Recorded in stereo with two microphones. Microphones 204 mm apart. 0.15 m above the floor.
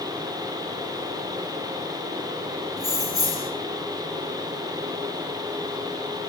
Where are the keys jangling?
20° right (ahead or behind), 2 m.